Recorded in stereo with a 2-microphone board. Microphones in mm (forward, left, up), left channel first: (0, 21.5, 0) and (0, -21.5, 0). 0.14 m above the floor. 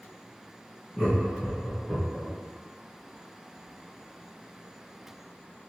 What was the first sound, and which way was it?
Laughter, 5° left (ahead or behind).